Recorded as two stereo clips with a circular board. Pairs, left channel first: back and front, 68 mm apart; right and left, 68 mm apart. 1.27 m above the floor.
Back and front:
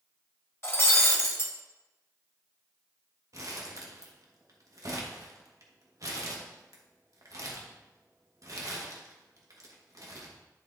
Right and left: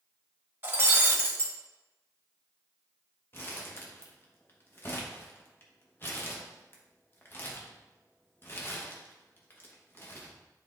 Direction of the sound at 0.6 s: 140° left.